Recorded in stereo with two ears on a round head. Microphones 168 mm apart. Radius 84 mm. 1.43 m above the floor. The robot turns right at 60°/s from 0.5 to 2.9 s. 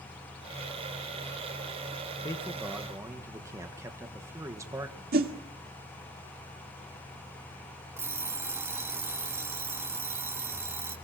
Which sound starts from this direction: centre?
An alarm clock, at 8.0 s.